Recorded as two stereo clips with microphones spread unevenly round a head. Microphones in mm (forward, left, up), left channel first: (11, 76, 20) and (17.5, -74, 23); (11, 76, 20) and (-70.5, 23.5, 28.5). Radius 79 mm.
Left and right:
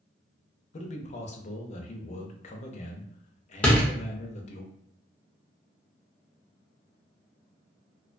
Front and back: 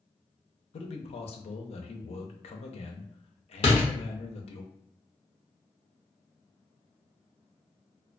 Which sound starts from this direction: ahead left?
A man speaking, at 0.7 s.